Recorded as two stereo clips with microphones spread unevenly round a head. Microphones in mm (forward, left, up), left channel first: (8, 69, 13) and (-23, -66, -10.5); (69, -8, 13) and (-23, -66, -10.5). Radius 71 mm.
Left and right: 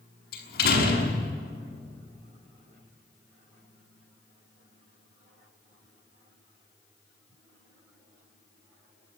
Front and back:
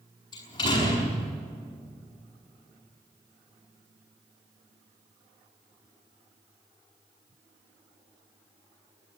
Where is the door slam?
95° left, 6 m.